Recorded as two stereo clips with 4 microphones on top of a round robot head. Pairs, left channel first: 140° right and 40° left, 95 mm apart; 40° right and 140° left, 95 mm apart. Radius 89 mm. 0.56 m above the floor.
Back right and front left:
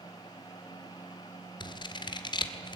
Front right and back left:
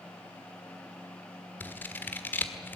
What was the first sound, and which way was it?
Scissors, 105° right.